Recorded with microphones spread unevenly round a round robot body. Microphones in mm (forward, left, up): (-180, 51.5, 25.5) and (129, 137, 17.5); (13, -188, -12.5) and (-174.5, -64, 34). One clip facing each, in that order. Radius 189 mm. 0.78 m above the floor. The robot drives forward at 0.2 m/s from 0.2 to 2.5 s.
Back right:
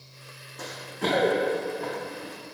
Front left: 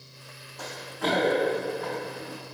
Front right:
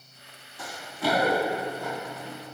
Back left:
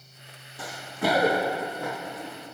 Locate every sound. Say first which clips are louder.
0.6 s running footsteps: back right 1 dB, back left 2 dB; 135° left, 1.7 m; by 2.3 s 150° left, 4 m